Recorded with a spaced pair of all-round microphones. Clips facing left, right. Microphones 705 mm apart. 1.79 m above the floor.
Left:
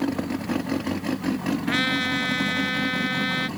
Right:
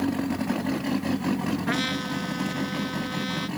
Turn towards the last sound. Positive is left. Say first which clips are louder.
# left 2 dB
turn(degrees=-70)  # may be behind; listen again after turning